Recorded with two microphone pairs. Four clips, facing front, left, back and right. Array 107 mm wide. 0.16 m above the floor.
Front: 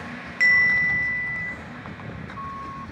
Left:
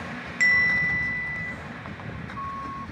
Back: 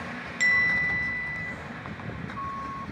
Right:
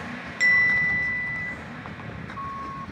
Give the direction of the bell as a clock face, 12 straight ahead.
11 o'clock.